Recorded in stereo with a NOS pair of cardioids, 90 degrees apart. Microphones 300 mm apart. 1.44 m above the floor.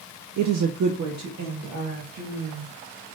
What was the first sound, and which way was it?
A woman speaking, 70° right.